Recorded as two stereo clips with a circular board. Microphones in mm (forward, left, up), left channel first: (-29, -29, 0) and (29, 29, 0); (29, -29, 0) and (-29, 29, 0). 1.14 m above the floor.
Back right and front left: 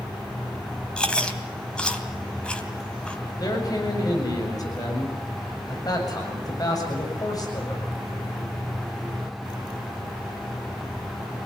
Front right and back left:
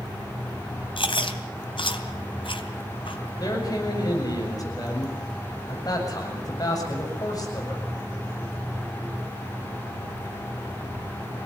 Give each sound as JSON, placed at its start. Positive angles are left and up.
{"t": 1.0, "sound": "chewing", "azimuth_deg": -55, "distance_m": 2.5}
{"t": 3.4, "sound": "a man speaking", "azimuth_deg": -90, "distance_m": 7.5}